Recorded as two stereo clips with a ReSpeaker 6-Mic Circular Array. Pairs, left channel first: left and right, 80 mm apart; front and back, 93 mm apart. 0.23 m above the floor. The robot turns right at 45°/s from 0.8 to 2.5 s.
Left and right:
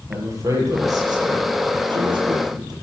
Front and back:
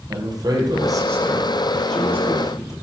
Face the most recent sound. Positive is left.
turn(degrees=-55)